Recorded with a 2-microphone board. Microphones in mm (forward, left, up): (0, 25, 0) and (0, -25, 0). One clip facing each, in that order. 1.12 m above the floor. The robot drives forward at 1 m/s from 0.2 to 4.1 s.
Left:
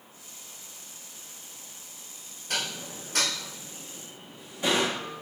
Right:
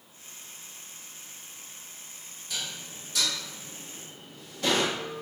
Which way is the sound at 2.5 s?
60° left (ahead or behind).